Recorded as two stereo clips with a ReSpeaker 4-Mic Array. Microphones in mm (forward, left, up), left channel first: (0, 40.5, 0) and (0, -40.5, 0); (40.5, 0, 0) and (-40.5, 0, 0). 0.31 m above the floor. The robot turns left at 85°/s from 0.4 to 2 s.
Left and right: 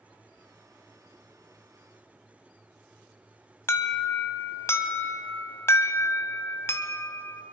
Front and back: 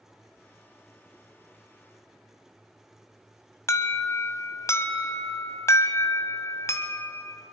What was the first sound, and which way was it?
An alarm, 40° left.